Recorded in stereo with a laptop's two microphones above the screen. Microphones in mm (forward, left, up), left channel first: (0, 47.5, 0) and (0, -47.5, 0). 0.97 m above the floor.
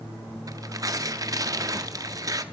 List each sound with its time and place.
0.5 s tearing paper: 40° right (ahead or behind), 0.5 m